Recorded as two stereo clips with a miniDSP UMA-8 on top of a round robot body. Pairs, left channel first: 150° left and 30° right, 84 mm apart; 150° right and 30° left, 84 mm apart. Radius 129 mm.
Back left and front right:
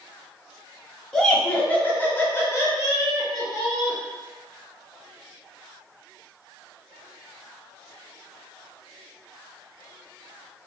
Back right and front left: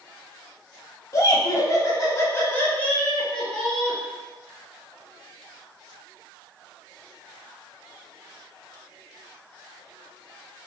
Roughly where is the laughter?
Behind right.